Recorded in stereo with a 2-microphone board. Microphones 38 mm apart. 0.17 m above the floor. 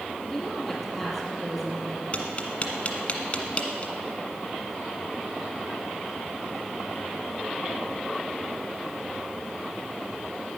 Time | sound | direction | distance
0.2 | a woman speaking | centre (ahead or behind) | 5 m
2.1 | tapping | 35° left (ahead or behind) | 1.5 m